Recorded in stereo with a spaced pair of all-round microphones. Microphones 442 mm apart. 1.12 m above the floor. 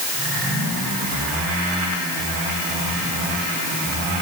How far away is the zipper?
I don't hear a zipper.